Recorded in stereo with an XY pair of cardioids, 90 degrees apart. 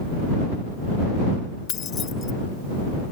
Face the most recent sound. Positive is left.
turn(degrees=65)